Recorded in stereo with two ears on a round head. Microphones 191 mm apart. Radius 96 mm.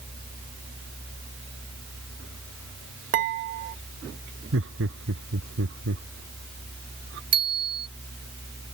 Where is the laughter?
60° right (ahead or behind).